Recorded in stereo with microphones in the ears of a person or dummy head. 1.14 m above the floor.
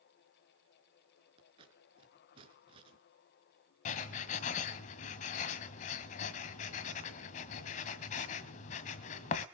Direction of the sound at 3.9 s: 40° left (ahead or behind).